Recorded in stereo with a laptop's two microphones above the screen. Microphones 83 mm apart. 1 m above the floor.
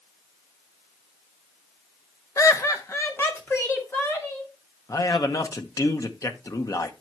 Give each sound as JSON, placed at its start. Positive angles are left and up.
{"t": 2.4, "sound": "laughter", "side_deg": 40, "distance_m": 0.6}
{"t": 4.9, "sound": "a man speaking", "side_deg": 40, "distance_m": 0.9}